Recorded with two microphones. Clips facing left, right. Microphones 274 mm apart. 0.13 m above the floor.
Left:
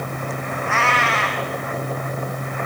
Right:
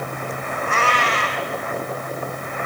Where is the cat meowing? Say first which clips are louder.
Right 1 dB; 40° right (ahead or behind), 2.5 m.